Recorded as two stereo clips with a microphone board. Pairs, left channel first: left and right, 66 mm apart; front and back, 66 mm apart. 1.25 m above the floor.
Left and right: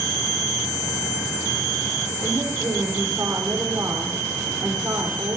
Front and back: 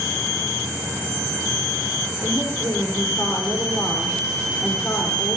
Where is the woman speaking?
45° right, 4.5 m.